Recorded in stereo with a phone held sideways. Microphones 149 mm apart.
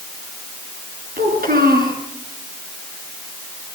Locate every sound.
1.2 s a child speaking: 85° right, 7.5 m